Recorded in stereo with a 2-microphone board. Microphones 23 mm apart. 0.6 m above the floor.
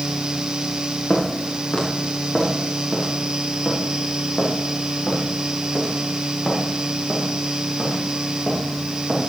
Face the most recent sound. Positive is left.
turn(degrees=-5)  # may be behind; listen again after turning